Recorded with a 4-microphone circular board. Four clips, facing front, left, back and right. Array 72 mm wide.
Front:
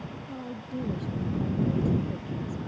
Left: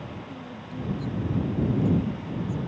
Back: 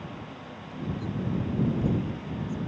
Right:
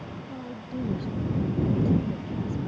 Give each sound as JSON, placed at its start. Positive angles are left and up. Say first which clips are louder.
{"t": 0.2, "sound": "a woman speaking", "louder": "right 2 dB, front 4 dB", "azimuth_deg": -30}